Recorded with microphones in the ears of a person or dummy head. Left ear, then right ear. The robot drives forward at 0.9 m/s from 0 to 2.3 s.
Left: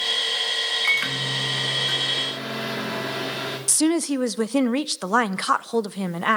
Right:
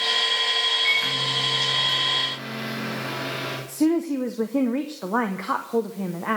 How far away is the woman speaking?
About 0.6 m.